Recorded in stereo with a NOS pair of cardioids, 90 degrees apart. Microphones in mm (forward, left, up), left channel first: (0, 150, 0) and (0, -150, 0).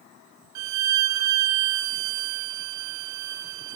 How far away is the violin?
About 0.7 m.